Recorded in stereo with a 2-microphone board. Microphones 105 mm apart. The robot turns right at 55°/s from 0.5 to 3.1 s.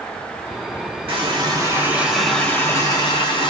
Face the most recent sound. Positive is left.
turn(degrees=50)